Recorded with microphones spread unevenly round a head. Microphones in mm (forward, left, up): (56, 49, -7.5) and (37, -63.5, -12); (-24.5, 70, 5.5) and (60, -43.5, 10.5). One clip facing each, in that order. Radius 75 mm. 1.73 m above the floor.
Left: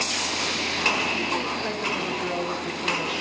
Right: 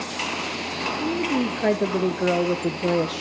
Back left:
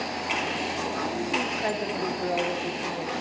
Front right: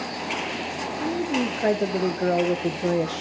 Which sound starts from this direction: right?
A woman speaking, at 1.0 s.